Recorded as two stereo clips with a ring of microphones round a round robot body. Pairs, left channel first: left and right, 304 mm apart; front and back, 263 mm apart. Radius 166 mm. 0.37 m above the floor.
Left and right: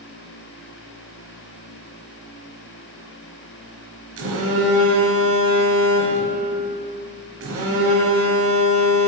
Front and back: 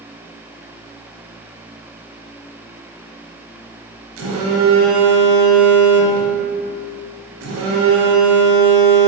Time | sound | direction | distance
4.2 | a phone buzzing | 135° right | 1.3 m